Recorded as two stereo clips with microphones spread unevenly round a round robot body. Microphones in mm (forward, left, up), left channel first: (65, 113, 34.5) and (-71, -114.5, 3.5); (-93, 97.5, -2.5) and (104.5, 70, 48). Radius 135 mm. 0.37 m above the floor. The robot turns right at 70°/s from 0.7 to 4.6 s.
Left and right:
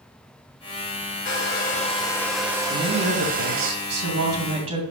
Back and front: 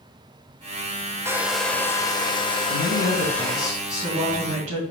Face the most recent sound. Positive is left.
turn(degrees=-55)